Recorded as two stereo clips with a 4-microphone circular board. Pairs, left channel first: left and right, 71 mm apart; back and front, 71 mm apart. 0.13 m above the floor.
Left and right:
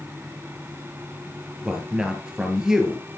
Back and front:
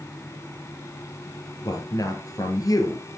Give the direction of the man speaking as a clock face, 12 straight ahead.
6 o'clock.